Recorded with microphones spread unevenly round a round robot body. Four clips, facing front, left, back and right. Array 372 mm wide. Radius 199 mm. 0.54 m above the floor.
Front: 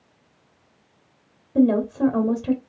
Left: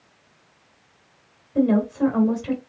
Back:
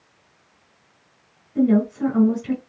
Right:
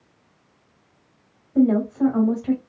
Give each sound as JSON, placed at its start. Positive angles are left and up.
{"t": 1.6, "sound": "a woman speaking", "azimuth_deg": 10, "distance_m": 1.4}